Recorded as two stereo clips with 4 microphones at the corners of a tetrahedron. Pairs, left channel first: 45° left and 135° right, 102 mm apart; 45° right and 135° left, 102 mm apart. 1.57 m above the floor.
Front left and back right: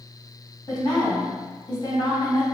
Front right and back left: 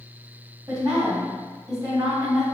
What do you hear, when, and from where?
0.7 s a woman speaking: 80° left, 1.7 m